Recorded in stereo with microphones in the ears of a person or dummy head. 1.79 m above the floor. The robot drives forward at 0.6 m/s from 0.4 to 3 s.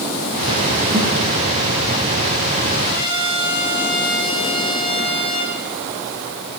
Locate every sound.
0.9 s a thud: 20° right (ahead or behind), 3 m
2.9 s a trumpet: 25° right (ahead or behind), 3 m; by 5.6 s 20° right (ahead or behind), 3 m